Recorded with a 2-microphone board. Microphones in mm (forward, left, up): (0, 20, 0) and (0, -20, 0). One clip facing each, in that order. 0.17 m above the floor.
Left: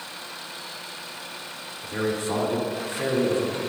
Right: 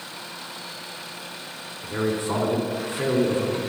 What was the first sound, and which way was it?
A man speaking, 30° right (ahead or behind).